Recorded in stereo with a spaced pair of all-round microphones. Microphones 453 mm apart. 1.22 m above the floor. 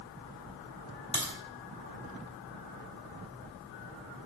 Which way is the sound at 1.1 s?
10° left (ahead or behind).